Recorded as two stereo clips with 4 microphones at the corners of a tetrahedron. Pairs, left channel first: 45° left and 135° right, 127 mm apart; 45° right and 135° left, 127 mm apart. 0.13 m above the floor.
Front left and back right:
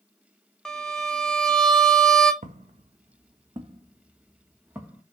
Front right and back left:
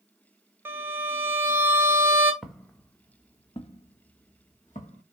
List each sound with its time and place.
0.7 s a violin: 125° left, 0.6 m
2.4 s footsteps: 135° right, 0.7 m; by 5.0 s 55° right, 1.5 m